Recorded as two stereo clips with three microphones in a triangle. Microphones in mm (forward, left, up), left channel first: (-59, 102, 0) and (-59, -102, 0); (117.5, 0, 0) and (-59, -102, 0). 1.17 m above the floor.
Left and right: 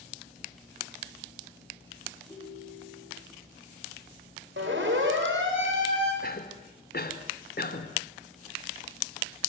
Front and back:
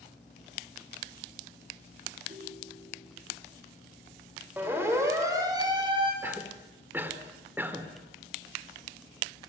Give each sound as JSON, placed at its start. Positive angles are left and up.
{"t": 2.3, "sound": "a ringtone", "azimuth_deg": 160, "distance_m": 5.0}
{"t": 4.6, "sound": "a siren", "azimuth_deg": -70, "distance_m": 6.5}
{"t": 6.2, "sound": "a cough", "azimuth_deg": 130, "distance_m": 3.5}